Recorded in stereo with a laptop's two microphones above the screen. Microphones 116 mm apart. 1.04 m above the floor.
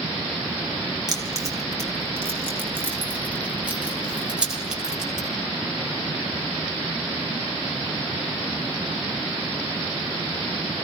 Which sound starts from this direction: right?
Keys jangling, at 1.1 s.